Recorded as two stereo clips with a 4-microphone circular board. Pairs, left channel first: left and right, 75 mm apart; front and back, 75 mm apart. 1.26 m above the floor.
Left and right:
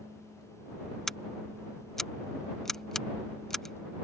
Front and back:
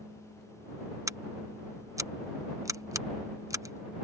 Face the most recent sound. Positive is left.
turn(degrees=170)